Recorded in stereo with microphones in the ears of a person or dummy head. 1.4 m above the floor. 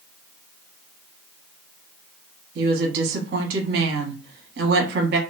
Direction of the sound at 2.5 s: 65° right (ahead or behind).